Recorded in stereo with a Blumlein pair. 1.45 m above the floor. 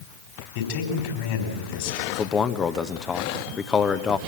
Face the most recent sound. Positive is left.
turn(degrees=20)